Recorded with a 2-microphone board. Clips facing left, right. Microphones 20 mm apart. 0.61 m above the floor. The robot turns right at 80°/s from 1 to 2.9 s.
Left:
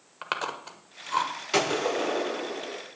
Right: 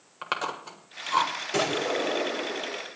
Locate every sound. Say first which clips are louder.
0.2 s chewing: right 1 dB; 5° left (ahead or behind), 1.2 m; by 1.3 s 20° right (ahead or behind), 1.2 m
1.5 s a gunshot: left 2 dB; 105° left, 6.5 m; by 2.8 s 155° right, 6.5 m